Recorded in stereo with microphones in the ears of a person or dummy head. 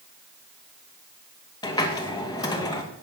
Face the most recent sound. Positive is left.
turn(degrees=15)  # may be behind; listen again after turning